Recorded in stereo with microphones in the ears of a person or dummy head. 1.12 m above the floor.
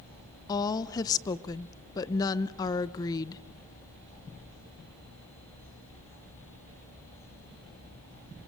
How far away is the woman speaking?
About 0.7 m.